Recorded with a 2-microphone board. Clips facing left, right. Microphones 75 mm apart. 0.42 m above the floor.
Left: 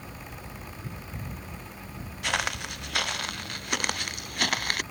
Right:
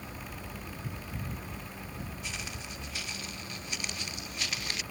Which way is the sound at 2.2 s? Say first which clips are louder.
Left 11 dB; 85° left.